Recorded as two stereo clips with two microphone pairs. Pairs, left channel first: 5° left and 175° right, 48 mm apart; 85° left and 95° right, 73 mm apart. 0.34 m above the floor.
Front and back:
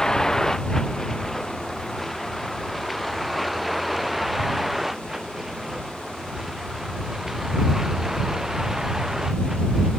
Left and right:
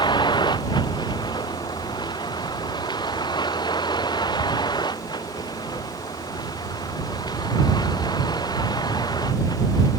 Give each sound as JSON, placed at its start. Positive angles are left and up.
{"t": 0.0, "sound": "a vehicle", "azimuth_deg": 85}